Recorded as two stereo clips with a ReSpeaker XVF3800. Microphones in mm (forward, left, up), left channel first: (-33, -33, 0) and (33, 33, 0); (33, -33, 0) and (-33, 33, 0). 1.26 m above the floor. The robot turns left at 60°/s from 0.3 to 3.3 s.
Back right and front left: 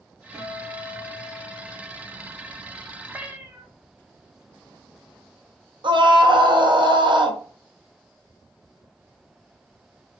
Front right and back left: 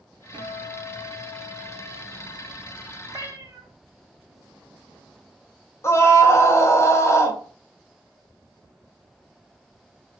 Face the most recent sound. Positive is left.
turn(degrees=15)